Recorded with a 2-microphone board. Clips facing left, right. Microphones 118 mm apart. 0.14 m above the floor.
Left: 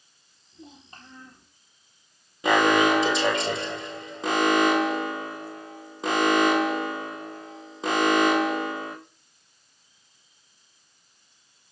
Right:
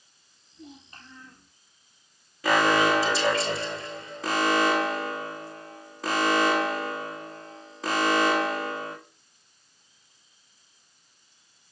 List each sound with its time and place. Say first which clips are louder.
0.5 s a child speaking: right 1 dB; 30° left (ahead or behind), 3.5 m
2.4 s an alarm: left 2 dB; 20° left (ahead or behind), 3.5 m